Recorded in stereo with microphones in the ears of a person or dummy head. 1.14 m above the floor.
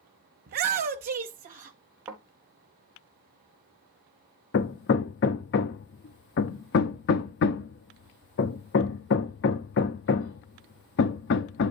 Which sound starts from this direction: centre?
A thud, at 2.1 s.